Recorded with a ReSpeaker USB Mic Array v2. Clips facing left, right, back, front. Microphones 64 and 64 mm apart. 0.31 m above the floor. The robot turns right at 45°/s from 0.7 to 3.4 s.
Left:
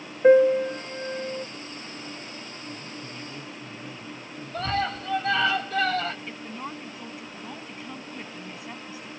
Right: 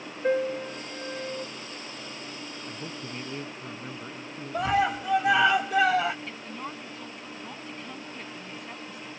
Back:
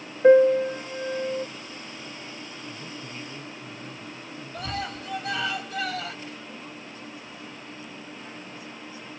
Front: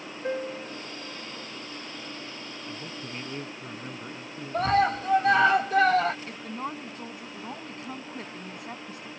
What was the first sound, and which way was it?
A piano, 145° left.